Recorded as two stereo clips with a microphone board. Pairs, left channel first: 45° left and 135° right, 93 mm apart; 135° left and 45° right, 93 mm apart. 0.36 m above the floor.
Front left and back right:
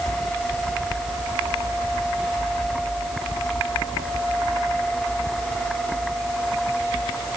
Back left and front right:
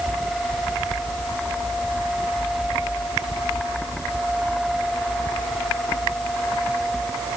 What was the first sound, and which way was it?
Only background noise.